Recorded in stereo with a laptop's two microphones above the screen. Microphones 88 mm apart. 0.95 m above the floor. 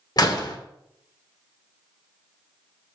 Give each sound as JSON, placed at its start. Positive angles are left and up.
{"t": 0.2, "sound": "a door slam", "side_deg": 50, "distance_m": 1.7}